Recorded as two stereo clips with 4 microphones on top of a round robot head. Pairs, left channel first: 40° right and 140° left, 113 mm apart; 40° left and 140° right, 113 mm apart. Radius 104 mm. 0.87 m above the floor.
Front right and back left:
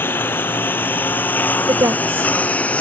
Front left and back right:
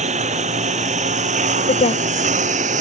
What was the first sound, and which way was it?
A lawn mower, 115° right.